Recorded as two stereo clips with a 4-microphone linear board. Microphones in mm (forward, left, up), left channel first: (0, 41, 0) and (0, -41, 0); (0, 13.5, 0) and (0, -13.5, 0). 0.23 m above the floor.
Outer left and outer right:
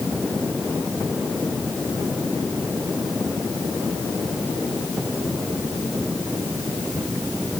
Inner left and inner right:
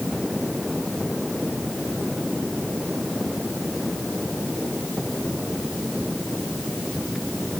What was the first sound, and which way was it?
Only background noise.